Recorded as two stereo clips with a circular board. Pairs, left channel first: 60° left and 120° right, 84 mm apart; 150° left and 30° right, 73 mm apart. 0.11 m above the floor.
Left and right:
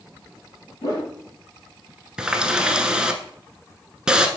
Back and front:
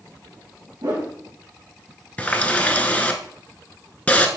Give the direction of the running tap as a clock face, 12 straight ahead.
6 o'clock.